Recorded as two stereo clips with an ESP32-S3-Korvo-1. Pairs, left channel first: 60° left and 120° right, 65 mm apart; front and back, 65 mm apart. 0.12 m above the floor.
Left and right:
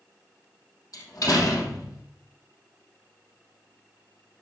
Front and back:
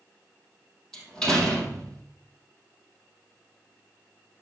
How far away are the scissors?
No scissors in this recording.